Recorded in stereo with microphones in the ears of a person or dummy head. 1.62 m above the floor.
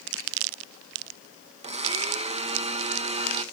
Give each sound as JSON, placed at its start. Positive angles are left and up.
{"t": 1.6, "sound": "a blender", "side_deg": -40, "distance_m": 0.8}